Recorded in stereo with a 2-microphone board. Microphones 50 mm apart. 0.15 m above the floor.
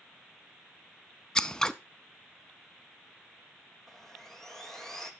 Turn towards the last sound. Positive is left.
turn(degrees=10)  # may be behind; listen again after turning